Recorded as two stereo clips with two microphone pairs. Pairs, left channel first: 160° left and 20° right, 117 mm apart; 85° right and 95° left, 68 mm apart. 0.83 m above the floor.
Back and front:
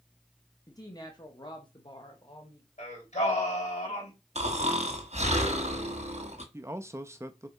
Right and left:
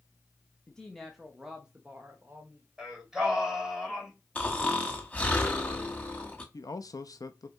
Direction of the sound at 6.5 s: 85° right.